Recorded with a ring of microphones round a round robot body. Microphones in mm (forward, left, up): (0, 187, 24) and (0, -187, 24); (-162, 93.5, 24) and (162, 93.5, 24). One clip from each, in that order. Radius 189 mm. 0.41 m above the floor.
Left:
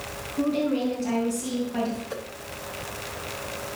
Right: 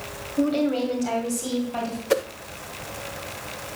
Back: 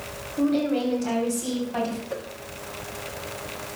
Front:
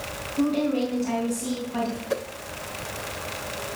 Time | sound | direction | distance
0.4 | a woman speaking | 125° right | 2.5 m
2.1 | a whoosh | 65° right | 0.5 m